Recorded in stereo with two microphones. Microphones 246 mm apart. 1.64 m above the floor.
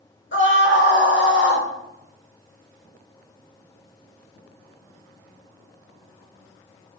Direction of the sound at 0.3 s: 50° left (ahead or behind).